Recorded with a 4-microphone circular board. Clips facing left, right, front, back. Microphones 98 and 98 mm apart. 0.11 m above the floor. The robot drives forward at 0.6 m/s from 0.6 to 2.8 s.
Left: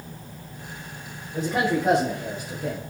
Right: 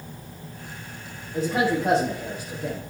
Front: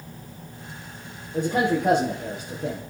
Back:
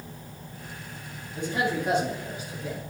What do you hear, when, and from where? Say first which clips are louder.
1.3 s a man speaking: right 1 dB, front 5 dB; straight ahead, 3 m